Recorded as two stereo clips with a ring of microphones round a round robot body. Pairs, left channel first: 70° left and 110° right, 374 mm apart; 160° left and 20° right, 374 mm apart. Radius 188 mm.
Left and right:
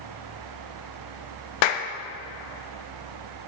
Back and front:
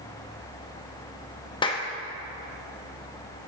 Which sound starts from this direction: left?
A clap, at 1.6 s.